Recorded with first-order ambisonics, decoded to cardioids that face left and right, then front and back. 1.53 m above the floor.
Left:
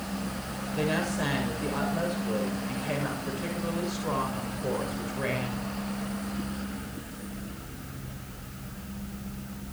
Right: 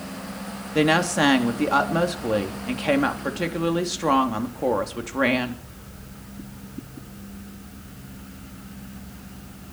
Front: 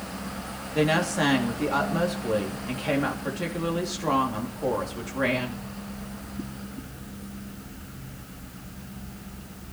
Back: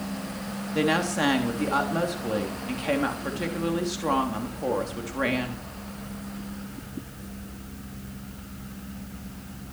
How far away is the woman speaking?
About 3 m.